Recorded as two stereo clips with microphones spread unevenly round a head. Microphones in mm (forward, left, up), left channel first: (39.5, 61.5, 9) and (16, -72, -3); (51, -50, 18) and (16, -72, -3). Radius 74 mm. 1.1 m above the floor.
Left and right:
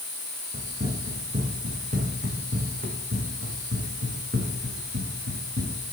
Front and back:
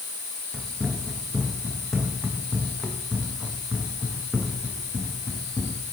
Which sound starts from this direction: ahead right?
Running footsteps, at 0.5 s.